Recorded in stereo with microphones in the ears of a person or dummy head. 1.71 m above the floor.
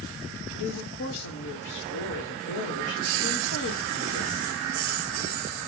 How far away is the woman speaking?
About 1.0 m.